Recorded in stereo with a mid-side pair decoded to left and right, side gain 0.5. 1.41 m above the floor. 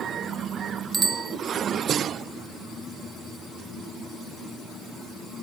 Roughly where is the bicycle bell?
Ahead right.